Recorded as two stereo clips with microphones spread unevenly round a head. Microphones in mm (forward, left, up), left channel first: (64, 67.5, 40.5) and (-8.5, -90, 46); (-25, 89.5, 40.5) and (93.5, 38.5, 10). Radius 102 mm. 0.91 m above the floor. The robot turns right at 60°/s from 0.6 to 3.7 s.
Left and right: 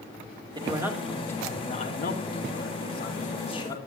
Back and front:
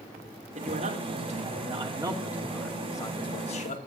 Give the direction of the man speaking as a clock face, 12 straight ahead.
2 o'clock.